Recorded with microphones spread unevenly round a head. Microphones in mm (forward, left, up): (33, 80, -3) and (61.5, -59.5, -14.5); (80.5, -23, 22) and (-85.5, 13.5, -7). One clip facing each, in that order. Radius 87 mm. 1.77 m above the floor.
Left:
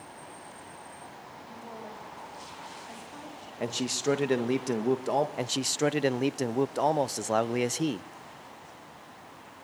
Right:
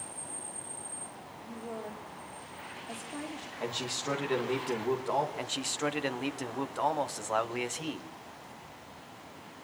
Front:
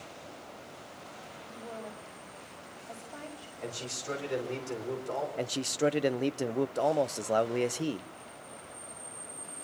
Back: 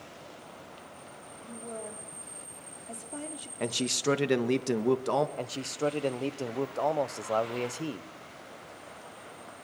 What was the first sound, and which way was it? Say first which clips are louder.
A woman speaking: right 4 dB, back 3 dB; 150° right.